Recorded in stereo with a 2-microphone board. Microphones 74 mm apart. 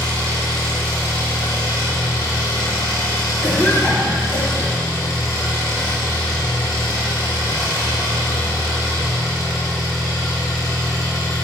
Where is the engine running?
55° left (ahead or behind), 3.5 m.